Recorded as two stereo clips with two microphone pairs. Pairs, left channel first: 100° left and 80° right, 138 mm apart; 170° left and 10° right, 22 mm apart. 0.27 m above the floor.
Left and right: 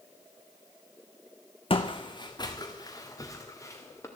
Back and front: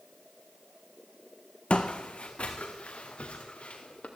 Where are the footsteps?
145° left, 1.2 m; by 4.1 s 170° left, 2.5 m.